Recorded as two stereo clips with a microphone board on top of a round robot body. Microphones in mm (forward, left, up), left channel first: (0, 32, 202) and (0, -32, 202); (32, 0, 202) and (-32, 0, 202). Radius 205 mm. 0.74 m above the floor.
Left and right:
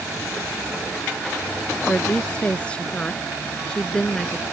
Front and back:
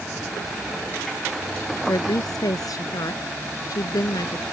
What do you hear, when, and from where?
1.9 s a woman speaking: 15° left